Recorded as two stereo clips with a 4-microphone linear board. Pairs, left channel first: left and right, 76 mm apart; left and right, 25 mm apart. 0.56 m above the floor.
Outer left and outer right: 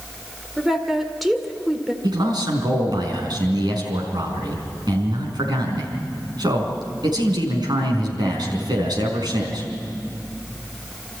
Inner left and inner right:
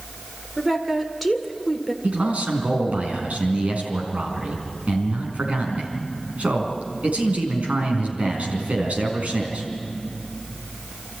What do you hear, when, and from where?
0.6 s a woman speaking: centre (ahead or behind), 1.9 m
2.0 s a man speaking: 70° right (ahead or behind), 4.5 m